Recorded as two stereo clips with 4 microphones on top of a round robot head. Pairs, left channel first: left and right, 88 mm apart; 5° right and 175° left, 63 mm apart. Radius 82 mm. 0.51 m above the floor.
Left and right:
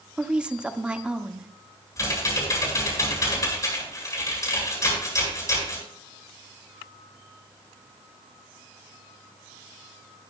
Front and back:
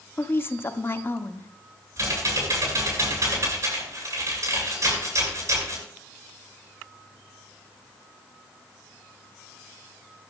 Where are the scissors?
I don't hear scissors.